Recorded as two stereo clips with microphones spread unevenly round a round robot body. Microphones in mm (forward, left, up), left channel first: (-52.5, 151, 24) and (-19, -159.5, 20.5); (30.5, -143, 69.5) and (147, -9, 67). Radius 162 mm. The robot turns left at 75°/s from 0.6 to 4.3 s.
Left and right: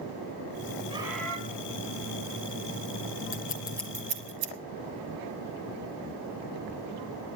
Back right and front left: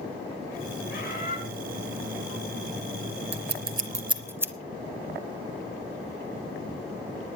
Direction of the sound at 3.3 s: 45° left.